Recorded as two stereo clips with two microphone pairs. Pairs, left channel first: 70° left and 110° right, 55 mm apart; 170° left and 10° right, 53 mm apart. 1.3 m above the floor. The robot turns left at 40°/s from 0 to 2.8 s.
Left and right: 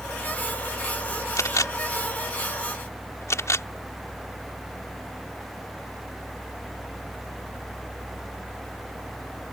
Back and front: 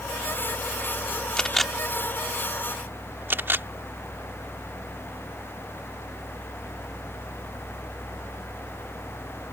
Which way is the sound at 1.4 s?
100° left.